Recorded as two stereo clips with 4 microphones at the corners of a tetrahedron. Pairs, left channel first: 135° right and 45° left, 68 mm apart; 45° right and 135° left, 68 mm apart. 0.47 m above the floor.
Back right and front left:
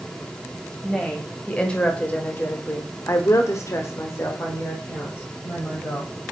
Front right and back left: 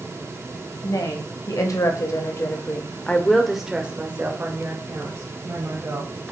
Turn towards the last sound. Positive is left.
turn(degrees=165)